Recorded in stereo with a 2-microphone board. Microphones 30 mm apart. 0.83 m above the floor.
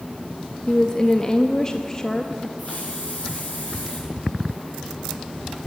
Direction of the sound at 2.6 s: 45° left (ahead or behind).